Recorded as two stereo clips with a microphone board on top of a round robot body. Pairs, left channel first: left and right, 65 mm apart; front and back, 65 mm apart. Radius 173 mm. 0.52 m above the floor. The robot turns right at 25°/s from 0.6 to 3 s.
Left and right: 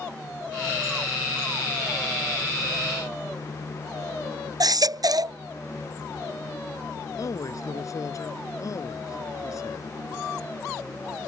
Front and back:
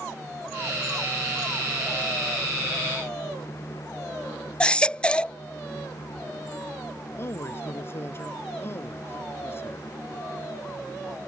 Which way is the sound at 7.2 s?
55° left.